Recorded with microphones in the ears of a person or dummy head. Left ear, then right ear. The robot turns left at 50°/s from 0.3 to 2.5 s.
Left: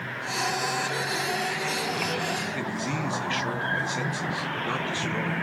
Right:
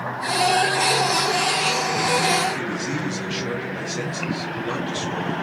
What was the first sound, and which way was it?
A man speaking, 15° left (ahead or behind).